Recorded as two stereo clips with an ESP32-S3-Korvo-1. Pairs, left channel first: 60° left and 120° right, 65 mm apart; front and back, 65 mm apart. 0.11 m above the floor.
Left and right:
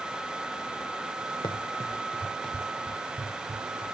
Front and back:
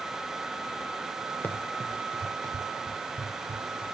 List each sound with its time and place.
1.4 s running footsteps: 60° left, 0.5 m; by 3.8 s 160° left, 2 m